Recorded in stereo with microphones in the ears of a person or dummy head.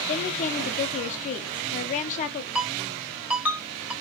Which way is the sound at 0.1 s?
35° left (ahead or behind).